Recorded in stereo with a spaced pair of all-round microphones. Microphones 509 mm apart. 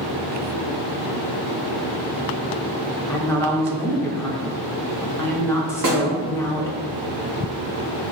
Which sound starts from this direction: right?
A snare drum, at 5.8 s.